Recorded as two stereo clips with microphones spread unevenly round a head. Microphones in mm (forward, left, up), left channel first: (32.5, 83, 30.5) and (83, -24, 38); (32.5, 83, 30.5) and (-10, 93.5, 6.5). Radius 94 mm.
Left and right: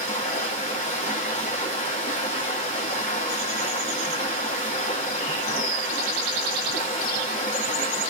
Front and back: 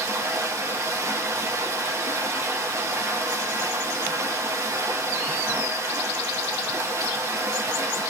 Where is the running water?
140° left, 0.8 m.